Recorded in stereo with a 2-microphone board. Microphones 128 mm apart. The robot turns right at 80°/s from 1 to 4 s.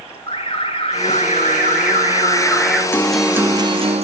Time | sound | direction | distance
0.3 | an alarm | 45° left | 4.5 m
2.9 | a guitar | 160° left | 0.9 m